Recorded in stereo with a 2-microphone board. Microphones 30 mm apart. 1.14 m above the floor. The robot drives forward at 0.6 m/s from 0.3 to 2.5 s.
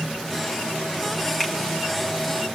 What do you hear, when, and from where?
1.4 s a finger snap: 15° right (ahead or behind), 1.5 m